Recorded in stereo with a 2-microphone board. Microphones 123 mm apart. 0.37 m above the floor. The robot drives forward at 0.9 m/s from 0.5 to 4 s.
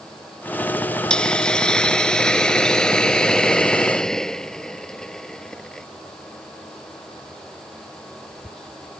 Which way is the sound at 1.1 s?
5° left (ahead or behind).